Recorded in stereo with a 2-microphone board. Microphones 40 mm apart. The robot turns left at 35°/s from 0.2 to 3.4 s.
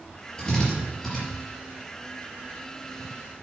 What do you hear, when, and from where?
0.4 s a drill: 25° left (ahead or behind), 4.5 m; by 1.2 s 5° right (ahead or behind), 4.5 m